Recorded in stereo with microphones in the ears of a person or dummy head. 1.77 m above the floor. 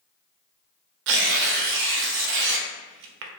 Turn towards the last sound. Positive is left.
turn(degrees=-65)  # may be behind; listen again after turning